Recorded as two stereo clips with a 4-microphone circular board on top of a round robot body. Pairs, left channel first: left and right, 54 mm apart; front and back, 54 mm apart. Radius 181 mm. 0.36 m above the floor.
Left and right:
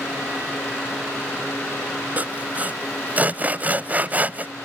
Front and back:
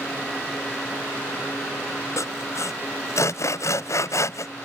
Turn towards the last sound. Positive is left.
turn(degrees=-25)